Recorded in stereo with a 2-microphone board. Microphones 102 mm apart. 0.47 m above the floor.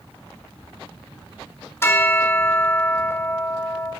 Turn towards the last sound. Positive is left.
turn(degrees=25)  # may be behind; listen again after turning